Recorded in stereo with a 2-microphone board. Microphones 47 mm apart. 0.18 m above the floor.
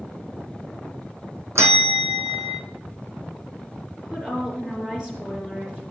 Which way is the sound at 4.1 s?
20° right (ahead or behind).